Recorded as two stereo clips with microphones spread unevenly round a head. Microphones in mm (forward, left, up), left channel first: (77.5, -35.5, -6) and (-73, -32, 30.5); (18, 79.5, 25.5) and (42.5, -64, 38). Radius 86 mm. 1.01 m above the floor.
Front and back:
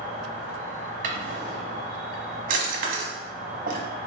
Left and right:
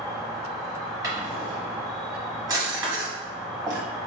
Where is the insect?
15° left, 1.5 m.